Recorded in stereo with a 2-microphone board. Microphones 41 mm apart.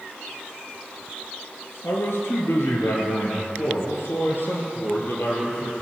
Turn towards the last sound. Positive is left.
turn(degrees=60)  # may be behind; listen again after turning